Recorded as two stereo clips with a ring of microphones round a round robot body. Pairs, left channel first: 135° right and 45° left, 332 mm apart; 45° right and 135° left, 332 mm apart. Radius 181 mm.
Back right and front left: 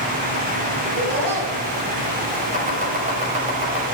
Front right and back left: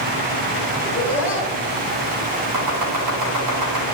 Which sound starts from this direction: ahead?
Laughter, at 0.8 s.